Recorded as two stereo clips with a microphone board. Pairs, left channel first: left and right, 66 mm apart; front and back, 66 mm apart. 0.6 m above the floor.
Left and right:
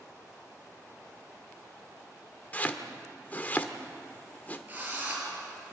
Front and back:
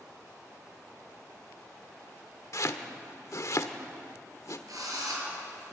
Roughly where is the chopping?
Ahead left.